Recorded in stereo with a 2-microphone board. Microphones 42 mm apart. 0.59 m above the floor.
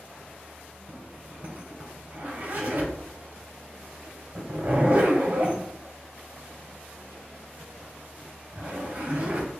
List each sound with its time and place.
0.9 s a zipper: 50° right (ahead or behind), 2 m